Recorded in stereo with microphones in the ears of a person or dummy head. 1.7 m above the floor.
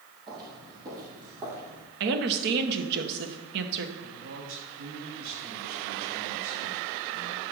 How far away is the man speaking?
About 6.5 m.